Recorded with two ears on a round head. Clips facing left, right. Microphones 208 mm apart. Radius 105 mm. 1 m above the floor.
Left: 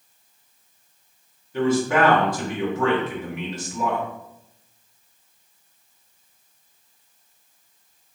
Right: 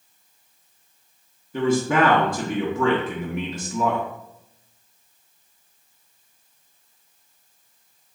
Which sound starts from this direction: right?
A man speaking, at 1.5 s.